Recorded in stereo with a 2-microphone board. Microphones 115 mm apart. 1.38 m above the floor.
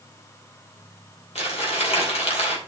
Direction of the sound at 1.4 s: 65° left (ahead or behind).